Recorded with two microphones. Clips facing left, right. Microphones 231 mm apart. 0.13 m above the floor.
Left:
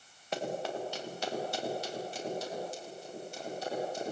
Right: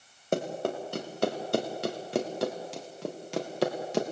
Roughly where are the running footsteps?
Right.